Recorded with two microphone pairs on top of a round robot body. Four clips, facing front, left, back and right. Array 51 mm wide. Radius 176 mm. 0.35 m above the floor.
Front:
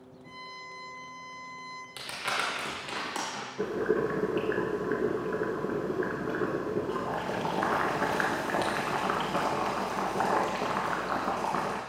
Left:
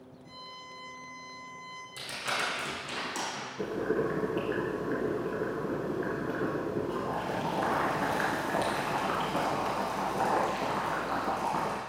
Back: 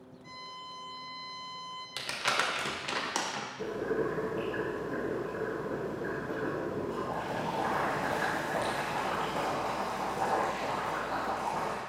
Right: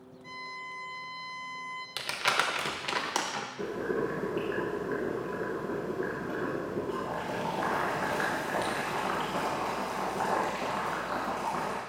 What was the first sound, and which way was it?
A violin, 95° right.